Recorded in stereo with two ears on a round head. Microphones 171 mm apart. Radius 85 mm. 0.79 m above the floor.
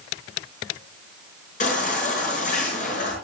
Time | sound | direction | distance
1.6 | a baby crying | 45° left (ahead or behind) | 5.5 m